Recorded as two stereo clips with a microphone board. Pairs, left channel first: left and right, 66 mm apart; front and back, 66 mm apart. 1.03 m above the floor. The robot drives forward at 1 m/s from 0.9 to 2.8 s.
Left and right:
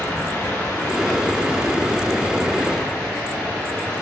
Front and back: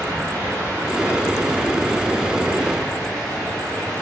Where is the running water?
135° left, 3 m; by 4.0 s 150° left, 4.5 m.